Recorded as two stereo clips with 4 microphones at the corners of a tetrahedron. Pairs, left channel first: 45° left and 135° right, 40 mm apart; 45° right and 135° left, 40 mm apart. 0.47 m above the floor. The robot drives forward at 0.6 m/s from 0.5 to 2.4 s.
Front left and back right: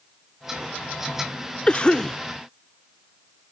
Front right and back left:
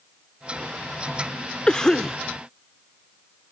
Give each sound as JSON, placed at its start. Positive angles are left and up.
{"t": 1.7, "sound": "a cough", "azimuth_deg": 5}